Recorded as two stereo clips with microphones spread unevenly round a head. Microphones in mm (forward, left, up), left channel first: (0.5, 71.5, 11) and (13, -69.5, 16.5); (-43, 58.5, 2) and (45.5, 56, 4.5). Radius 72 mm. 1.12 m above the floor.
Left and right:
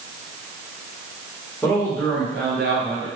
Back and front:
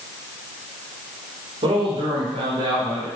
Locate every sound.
1.6 s a man speaking: 5° left, 3.5 m; by 3.1 s 25° right, 4 m